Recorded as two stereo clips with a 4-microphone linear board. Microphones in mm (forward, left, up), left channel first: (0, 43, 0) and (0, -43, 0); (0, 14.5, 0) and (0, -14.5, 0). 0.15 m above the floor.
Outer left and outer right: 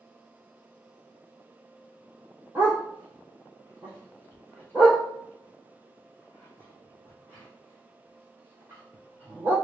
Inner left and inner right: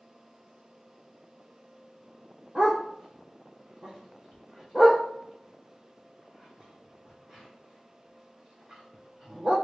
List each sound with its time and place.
2.5 s a dog barking: 25° right (ahead or behind), 2 m